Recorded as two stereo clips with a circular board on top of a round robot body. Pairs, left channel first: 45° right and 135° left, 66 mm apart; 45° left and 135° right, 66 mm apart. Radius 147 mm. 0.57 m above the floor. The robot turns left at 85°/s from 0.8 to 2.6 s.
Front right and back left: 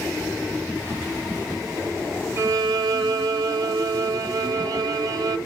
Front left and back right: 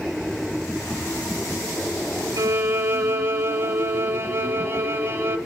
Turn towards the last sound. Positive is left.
turn(degrees=165)